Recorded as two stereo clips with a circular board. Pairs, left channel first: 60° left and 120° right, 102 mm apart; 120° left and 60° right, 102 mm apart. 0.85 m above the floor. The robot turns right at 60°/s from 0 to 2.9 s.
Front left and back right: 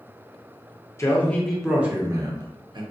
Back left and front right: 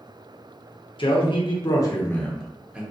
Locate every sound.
1.0 s a man speaking: 115° left, 0.7 m; by 2.8 s 135° right, 0.7 m